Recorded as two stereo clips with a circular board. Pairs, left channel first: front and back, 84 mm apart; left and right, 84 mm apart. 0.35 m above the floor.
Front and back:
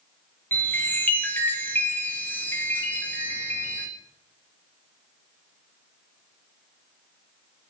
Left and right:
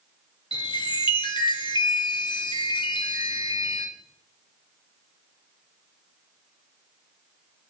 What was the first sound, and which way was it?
A chime, 65° left.